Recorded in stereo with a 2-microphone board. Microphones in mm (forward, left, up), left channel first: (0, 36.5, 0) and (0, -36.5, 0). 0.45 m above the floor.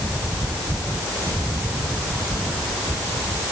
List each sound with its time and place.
Only background noise.